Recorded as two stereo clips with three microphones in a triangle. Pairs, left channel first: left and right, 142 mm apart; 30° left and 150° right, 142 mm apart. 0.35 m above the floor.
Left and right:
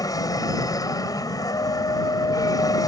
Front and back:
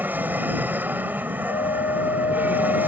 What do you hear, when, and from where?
0.0 s an aircraft: 140° left
1.5 s a flute: 40° left